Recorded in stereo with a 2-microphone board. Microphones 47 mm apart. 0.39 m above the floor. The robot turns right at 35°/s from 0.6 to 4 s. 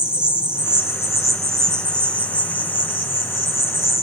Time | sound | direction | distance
0.0 | an insect | 15° right | 2.5 m